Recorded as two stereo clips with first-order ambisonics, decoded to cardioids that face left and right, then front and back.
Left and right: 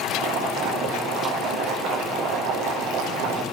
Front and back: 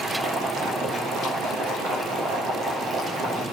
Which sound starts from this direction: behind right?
Boiling, at 0.1 s.